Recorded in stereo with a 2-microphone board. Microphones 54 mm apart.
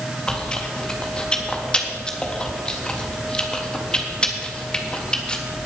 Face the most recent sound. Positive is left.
turn(degrees=15)  # may be behind; listen again after turning